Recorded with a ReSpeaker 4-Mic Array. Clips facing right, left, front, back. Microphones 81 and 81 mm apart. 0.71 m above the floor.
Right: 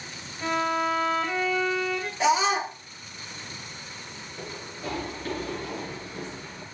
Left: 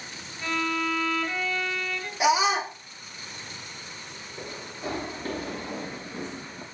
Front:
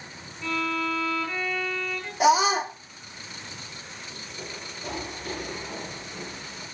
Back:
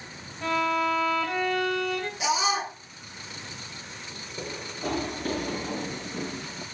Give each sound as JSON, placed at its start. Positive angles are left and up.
{"t": 0.4, "sound": "a violin", "azimuth_deg": -160, "distance_m": 2.0}
{"t": 2.2, "sound": "a scream", "azimuth_deg": 15, "distance_m": 1.3}
{"t": 4.4, "sound": "running footsteps", "azimuth_deg": 155, "distance_m": 5.0}